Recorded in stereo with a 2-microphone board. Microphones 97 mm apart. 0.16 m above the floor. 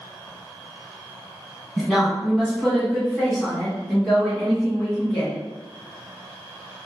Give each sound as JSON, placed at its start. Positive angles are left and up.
{"t": 1.8, "sound": "a woman speaking", "side_deg": -5, "distance_m": 1.4}